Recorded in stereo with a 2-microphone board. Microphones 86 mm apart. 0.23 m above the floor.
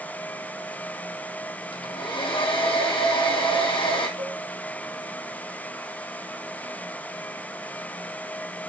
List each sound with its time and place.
1.7 s a hair dryer: 85° left, 2.5 m
4.2 s a cowbell: 75° right (ahead or behind), 4 m